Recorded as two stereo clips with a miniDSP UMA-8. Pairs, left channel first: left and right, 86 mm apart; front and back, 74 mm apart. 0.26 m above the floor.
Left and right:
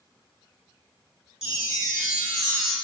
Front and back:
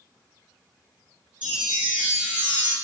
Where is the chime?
160° right, 1.1 m.